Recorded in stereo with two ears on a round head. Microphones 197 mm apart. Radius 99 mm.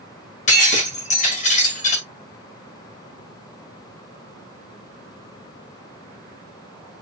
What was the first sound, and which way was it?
Breaking glass, 35° left (ahead or behind).